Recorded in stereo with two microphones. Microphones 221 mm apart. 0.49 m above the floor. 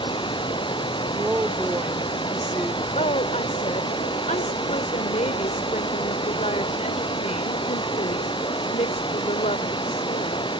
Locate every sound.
0.0 s running water: 20° left (ahead or behind)
1.1 s a woman speaking: 5° right (ahead or behind)
3.0 s a woman speaking: 35° left (ahead or behind)